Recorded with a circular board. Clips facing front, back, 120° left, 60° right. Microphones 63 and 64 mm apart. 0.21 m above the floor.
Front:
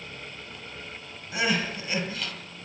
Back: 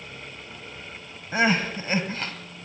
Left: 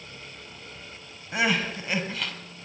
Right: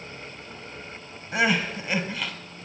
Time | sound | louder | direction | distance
1.3 | crying | back 5 dB, right 2 dB | 145° right | 1.4 m